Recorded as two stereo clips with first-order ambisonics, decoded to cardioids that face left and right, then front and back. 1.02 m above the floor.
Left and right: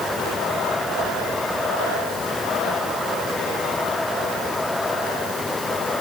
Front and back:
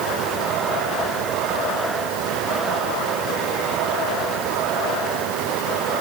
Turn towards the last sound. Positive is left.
No sound to turn to.